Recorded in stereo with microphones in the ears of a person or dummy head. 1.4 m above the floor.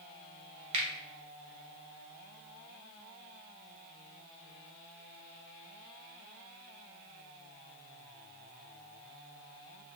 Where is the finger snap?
40° right (ahead or behind), 1.3 m.